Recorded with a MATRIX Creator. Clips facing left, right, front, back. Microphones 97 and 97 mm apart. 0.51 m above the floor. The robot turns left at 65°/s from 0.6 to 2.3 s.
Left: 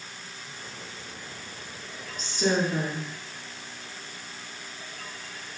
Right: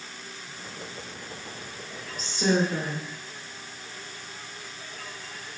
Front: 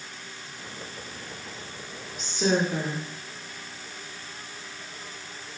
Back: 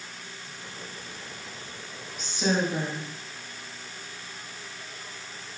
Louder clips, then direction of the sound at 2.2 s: Right 1 dB, front 2 dB; 10° right.